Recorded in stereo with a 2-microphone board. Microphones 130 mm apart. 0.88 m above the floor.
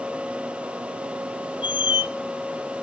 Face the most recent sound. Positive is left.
turn(degrees=40)  # may be behind; listen again after turning